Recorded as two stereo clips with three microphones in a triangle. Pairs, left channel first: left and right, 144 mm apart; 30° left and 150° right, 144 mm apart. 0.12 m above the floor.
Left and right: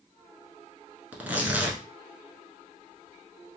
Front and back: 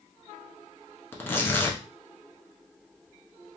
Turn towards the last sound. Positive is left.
turn(degrees=-25)